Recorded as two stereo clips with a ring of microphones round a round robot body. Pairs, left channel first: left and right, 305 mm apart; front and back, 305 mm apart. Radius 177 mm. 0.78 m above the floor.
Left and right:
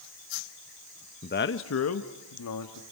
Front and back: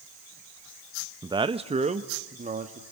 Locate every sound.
1.2 s a man speaking: 115° left, 0.8 m